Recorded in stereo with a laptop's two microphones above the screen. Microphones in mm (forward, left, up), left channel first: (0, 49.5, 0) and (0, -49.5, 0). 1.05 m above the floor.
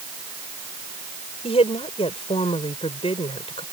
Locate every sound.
1.4 s a woman speaking: 75° left (ahead or behind)